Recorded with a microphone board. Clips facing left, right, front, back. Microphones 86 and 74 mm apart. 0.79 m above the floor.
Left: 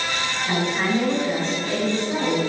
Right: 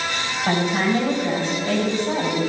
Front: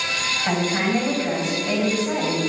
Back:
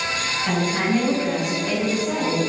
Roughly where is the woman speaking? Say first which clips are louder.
Right 3 dB, even; ahead right.